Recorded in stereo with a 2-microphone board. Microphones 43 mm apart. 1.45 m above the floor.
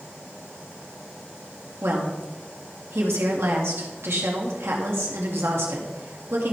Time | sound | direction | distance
1.8 | a woman speaking | 70° right (ahead or behind) | 2 m